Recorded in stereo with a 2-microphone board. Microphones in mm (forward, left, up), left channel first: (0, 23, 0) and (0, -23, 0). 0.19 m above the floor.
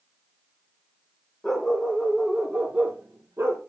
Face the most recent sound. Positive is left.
turn(degrees=-60)  # may be behind; listen again after turning